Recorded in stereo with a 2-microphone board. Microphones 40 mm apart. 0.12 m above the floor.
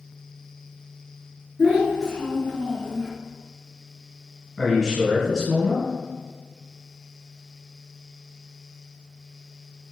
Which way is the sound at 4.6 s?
Centre (ahead or behind).